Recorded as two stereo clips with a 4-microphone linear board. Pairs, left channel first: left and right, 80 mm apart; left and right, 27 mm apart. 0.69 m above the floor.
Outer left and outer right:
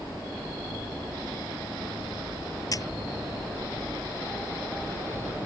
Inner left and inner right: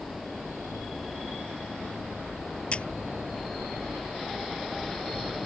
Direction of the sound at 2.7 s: 45° left (ahead or behind).